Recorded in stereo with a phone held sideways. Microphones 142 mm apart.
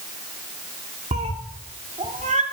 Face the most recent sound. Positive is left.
turn(degrees=-70)  # may be behind; listen again after turning